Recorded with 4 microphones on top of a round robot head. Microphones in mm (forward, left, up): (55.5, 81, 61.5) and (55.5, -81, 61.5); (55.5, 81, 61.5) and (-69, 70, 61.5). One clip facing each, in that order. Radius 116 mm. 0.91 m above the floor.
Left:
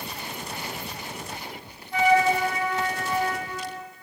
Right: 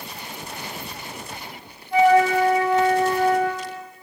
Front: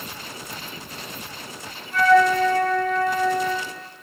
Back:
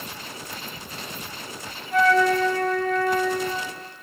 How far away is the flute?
About 1.3 m.